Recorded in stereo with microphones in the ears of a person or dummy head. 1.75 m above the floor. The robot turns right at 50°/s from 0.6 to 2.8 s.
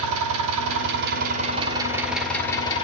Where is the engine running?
80° right, 2.5 m; by 2.8 s 30° left, 2.5 m.